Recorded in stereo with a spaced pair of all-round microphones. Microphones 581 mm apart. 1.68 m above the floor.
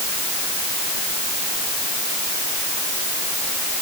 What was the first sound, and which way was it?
Only background noise.